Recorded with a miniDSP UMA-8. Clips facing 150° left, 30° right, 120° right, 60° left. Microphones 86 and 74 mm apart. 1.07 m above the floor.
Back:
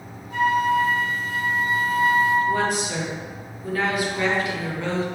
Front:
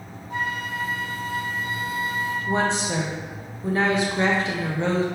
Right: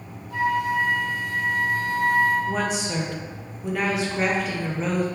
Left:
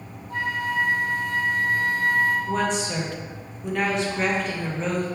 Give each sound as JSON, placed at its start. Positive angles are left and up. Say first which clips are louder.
{"t": 0.3, "sound": "a flute", "louder": "back 9 dB, right 4 dB", "azimuth_deg": 25, "distance_m": 1.4}
{"t": 2.5, "sound": "a woman speaking", "louder": "back 1 dB, left 1 dB", "azimuth_deg": -35, "distance_m": 0.7}